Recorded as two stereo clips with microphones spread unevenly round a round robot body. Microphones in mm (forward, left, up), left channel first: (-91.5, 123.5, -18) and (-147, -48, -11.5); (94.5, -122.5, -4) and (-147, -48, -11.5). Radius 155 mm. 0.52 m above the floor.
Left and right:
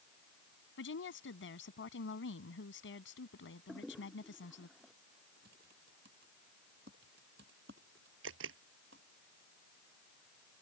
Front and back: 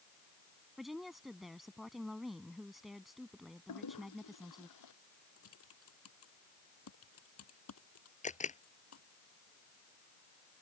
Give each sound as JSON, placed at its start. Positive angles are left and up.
{"t": 0.8, "sound": "a woman speaking", "azimuth_deg": 75}
{"t": 3.7, "sound": "a toilet flushing", "azimuth_deg": -20}
{"t": 5.4, "sound": "typing on a keyboard", "azimuth_deg": -50}
{"t": 8.2, "sound": "a camera shutter", "azimuth_deg": -80}